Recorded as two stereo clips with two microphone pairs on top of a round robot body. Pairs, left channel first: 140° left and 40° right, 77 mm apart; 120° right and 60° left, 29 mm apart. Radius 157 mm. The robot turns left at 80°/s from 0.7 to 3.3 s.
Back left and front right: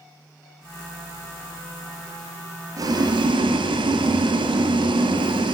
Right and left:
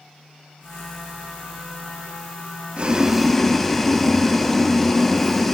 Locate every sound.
2.8 s boiling: 5° left, 0.7 m; by 5.5 s 40° right, 0.7 m